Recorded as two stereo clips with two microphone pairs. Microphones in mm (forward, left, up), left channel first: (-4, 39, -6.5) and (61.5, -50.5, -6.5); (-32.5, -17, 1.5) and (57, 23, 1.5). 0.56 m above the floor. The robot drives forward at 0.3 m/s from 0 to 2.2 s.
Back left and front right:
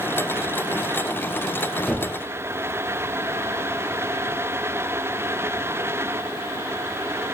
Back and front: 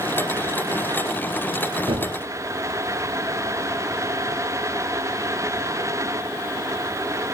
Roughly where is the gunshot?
Ahead left.